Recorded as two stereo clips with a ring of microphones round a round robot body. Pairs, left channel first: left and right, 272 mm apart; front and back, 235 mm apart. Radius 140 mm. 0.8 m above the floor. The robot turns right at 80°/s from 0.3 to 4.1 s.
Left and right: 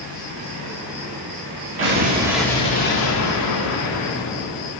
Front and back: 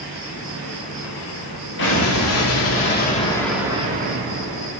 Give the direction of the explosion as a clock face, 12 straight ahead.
2 o'clock.